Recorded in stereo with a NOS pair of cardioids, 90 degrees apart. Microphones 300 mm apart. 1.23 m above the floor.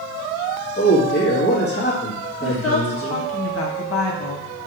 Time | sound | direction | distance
0.8 | a man speaking | 35° left | 1.9 m
2.4 | a woman speaking | 50° left | 1.6 m